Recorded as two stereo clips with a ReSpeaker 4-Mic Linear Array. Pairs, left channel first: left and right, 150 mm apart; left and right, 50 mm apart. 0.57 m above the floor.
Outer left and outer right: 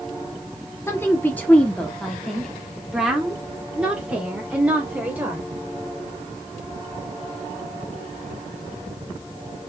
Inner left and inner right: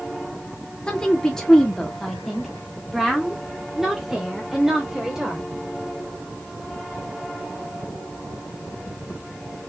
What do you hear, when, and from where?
0.9 s a woman speaking: 20° left (ahead or behind), 1.1 m; by 5.4 s 15° right (ahead or behind), 2.5 m